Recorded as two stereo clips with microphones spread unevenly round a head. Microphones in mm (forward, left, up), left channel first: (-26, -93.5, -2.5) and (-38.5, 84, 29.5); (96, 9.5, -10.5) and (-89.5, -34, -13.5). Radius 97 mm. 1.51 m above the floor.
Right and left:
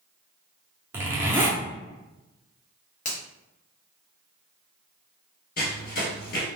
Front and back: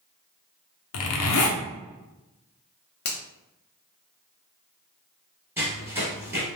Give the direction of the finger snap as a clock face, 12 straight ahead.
1 o'clock.